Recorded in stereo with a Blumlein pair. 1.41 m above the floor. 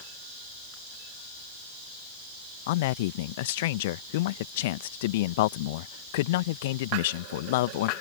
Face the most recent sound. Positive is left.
turn(degrees=50)